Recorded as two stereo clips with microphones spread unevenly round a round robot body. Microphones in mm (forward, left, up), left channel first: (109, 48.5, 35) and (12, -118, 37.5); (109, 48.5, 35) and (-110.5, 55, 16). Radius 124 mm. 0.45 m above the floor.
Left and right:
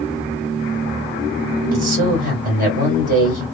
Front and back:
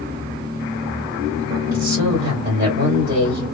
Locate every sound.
1.7 s a man speaking: 150° right, 2.0 m